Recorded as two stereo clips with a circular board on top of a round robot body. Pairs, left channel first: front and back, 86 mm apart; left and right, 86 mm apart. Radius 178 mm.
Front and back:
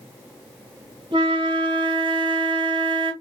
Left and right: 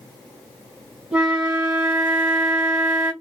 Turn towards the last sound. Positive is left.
turn(degrees=-165)